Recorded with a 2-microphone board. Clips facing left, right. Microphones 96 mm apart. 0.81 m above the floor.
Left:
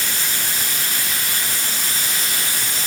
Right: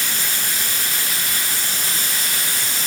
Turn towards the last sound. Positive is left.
No sound to turn to.